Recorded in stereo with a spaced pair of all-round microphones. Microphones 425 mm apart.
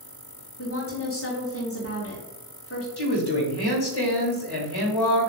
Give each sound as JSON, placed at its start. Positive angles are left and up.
{"t": 0.6, "sound": "a woman speaking", "side_deg": 35, "distance_m": 0.6}
{"t": 3.0, "sound": "a woman speaking", "side_deg": 70, "distance_m": 0.8}